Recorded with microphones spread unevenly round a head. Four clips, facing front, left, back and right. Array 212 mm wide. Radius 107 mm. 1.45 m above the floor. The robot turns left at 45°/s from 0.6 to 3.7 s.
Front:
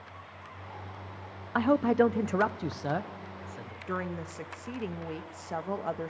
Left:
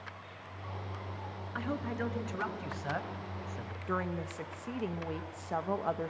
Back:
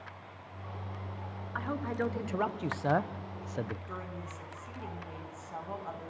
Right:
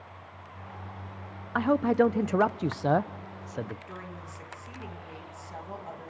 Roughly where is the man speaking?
Ahead right.